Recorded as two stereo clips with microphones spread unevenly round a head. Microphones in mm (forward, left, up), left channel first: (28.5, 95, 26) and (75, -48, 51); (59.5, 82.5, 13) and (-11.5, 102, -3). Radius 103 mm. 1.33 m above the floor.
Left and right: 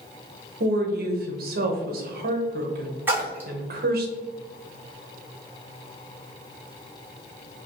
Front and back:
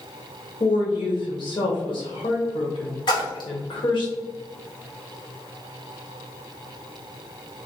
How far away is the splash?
About 1.3 m.